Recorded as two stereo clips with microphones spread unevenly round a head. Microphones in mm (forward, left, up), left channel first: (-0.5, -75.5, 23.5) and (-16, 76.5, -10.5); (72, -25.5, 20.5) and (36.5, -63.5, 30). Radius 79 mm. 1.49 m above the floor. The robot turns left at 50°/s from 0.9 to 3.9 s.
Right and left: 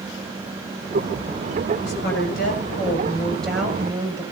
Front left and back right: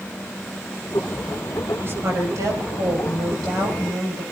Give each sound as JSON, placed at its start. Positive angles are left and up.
{"t": 1.8, "sound": "a woman speaking", "azimuth_deg": -90, "distance_m": 8.5}